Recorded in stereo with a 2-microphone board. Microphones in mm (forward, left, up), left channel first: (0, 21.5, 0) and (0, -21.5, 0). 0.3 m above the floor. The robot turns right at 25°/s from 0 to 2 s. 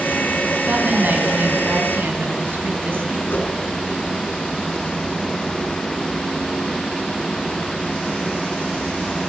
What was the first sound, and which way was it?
A woman speaking, 135° right.